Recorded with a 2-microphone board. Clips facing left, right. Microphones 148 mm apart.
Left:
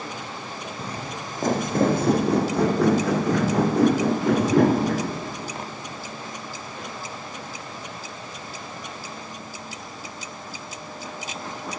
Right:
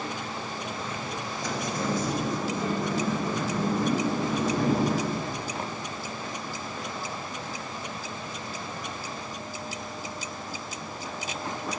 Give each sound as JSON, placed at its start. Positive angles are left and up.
{"t": 0.8, "sound": "footsteps", "side_deg": 35, "distance_m": 1.4}